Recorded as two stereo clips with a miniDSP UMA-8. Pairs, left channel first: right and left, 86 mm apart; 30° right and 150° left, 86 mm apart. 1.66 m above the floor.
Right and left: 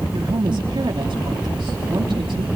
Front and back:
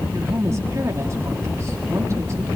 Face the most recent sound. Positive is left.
turn(degrees=100)